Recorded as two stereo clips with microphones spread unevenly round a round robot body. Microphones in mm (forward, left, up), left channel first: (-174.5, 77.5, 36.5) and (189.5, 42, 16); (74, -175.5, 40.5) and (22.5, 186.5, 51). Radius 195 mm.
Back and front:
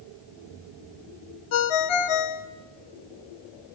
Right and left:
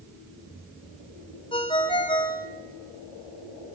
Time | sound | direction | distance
1.5 | a ringtone | 160° right | 1.3 m